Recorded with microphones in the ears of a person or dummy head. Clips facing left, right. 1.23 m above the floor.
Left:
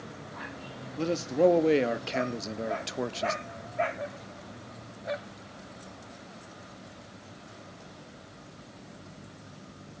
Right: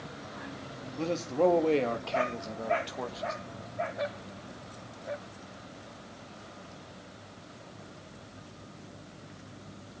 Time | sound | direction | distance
1.0 | a man speaking | 10° left (ahead or behind) | 2.0 m